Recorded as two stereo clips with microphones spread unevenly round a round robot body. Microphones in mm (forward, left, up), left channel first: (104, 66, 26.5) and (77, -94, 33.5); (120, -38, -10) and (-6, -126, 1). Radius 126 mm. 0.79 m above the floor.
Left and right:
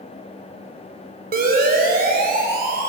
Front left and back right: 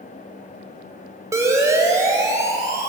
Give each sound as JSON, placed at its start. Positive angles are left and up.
{"t": 1.3, "sound": "a siren", "azimuth_deg": -75, "distance_m": 5.0}